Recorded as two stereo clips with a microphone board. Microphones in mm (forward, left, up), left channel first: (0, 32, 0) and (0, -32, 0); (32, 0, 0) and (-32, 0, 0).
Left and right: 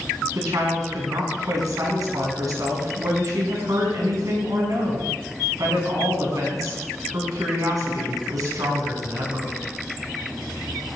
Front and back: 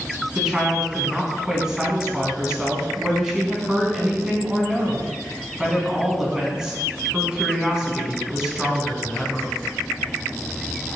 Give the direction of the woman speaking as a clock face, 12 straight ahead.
3 o'clock.